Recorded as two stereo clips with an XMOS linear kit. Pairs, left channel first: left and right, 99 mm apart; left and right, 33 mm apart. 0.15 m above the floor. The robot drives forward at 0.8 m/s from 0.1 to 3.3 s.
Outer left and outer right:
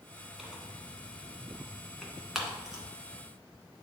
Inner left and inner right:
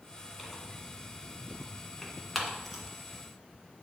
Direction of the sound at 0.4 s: 5° right (ahead or behind).